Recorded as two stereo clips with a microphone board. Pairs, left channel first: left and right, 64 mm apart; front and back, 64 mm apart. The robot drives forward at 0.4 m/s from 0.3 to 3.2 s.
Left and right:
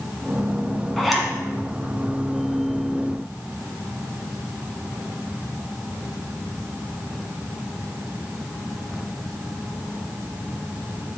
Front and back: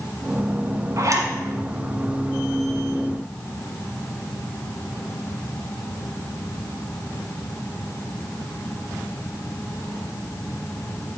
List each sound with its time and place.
1.0 s a zipper: straight behind, 1.3 m